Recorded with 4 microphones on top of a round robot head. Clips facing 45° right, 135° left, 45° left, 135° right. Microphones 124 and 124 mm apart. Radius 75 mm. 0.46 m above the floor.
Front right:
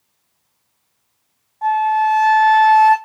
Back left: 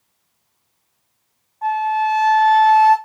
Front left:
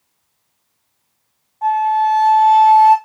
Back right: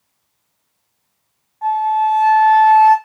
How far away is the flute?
About 2.5 m.